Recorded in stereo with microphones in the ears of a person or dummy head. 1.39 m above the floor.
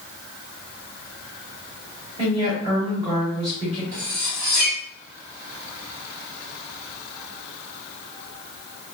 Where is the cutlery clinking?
50° right (ahead or behind), 1.5 m.